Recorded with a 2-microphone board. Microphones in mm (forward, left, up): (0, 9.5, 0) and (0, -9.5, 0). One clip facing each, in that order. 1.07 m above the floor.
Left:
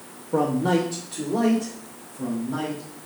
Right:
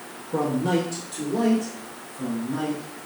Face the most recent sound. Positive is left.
turn(degrees=25)  # may be behind; listen again after turning